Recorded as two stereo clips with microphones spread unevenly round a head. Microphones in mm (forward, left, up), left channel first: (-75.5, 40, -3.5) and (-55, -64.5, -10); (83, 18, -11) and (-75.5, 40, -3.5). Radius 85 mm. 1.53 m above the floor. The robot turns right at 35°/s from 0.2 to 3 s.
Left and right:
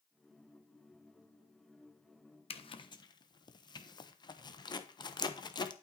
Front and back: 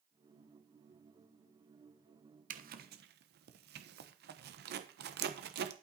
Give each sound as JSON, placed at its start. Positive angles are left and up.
{"t": 2.5, "sound": "a zipper", "azimuth_deg": 135, "distance_m": 1.0}